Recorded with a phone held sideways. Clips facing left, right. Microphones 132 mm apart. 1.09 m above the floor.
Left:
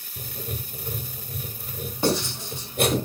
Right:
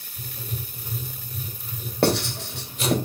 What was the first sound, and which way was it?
Writing, 60° left (ahead or behind).